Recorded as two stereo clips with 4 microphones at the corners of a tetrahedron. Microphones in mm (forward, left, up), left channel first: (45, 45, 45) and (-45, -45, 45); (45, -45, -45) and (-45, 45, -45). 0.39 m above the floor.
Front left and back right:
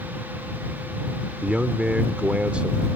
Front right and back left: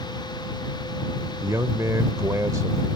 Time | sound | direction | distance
1.4 | a man speaking | 155° left | ?